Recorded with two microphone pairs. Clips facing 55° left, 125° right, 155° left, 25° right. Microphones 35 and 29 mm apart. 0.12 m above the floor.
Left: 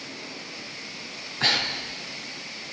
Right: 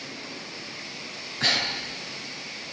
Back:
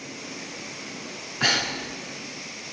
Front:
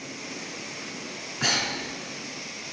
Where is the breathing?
130° left, 0.8 m.